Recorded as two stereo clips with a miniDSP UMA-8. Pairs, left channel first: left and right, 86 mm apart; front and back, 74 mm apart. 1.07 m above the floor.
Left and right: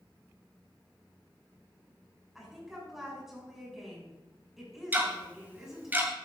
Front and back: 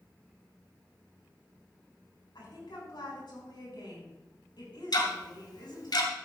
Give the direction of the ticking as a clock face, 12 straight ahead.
1 o'clock.